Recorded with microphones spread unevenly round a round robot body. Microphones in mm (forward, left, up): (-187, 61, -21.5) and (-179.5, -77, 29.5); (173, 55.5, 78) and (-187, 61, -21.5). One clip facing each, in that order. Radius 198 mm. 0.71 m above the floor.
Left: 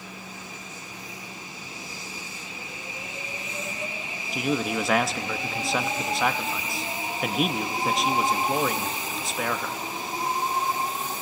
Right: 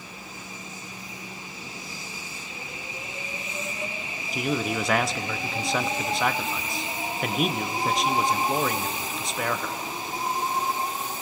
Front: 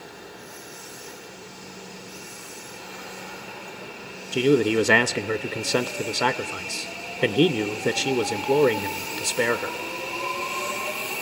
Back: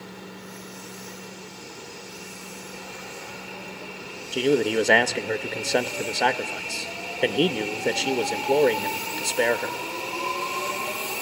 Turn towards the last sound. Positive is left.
turn(degrees=95)